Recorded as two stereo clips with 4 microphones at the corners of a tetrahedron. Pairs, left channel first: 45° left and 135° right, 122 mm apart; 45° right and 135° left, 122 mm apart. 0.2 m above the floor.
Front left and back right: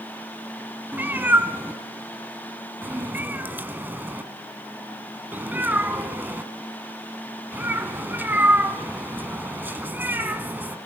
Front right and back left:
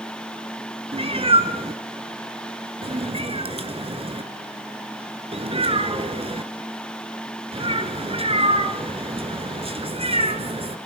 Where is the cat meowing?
150° left, 1.3 m.